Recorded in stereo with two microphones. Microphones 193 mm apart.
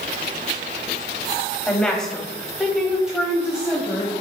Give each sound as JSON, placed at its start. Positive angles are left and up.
{"t": 1.7, "sound": "a woman speaking", "side_deg": 5, "distance_m": 1.3}